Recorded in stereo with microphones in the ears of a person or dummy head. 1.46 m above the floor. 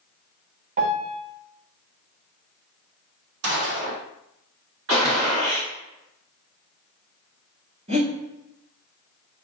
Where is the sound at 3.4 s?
70° right (ahead or behind), 0.9 m.